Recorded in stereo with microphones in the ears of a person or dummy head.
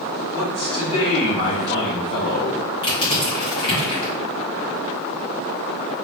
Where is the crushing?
25° left (ahead or behind), 1.3 m.